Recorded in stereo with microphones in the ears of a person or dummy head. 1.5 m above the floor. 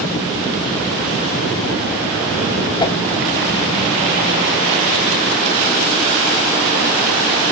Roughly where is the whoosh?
Left.